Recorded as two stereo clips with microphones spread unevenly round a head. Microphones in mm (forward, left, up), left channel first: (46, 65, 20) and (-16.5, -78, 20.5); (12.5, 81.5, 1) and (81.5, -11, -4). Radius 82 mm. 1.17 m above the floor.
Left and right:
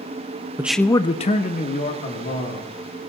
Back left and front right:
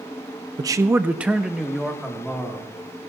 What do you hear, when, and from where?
0.6 s a man speaking: 50° right, 0.6 m; by 2.7 s 40° left, 2.5 m